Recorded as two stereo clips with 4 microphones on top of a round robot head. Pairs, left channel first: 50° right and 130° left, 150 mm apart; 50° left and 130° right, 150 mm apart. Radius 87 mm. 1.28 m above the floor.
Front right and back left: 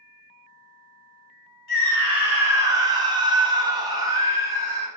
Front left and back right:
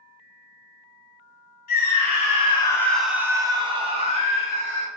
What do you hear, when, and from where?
1.7 s a scream: 45° left, 0.9 m; by 4.9 s 165° right, 1.4 m